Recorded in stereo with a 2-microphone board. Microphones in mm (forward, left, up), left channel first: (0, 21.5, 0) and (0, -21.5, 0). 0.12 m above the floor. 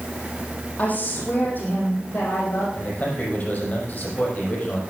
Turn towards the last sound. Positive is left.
turn(degrees=45)  # may be behind; listen again after turning